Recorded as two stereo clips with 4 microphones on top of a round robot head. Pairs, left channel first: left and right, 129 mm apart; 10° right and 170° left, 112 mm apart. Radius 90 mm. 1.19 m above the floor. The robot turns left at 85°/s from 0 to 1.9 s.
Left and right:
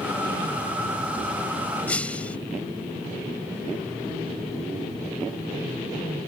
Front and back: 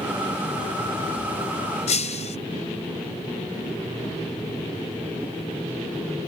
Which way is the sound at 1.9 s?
10° left.